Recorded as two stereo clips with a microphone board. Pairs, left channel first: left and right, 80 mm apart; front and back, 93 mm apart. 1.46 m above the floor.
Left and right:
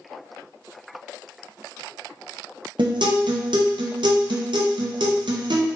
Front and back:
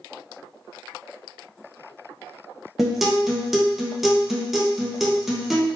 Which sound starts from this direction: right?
A guitar, at 2.8 s.